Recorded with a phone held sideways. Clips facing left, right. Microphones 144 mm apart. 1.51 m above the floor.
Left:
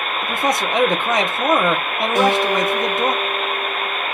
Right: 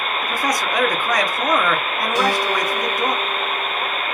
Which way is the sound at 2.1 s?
50° left (ahead or behind).